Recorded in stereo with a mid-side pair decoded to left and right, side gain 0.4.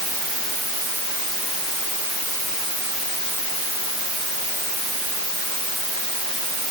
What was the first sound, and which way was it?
Only background noise.